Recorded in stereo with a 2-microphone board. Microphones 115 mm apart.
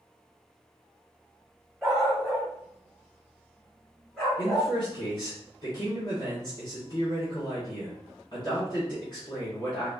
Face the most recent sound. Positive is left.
turn(degrees=45)  # may be behind; listen again after turning